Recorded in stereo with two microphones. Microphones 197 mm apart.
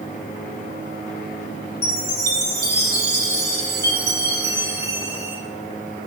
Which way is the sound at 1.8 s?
55° right (ahead or behind).